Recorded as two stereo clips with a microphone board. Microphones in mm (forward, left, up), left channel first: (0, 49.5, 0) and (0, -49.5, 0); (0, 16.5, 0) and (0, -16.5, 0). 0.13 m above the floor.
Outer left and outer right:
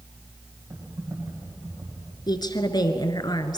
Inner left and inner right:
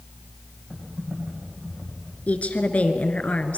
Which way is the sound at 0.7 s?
40° right (ahead or behind).